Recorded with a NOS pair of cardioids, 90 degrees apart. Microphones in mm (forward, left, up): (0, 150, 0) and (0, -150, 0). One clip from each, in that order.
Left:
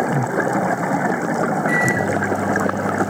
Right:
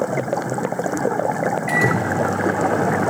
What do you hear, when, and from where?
1.7 s a microwave: 45° right, 5 m